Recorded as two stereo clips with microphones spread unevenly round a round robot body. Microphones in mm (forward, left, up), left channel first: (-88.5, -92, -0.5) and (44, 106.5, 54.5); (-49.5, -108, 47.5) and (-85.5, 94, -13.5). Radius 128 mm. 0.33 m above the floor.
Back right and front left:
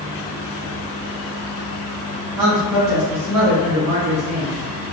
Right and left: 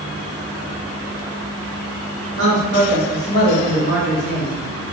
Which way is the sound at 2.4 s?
55° left.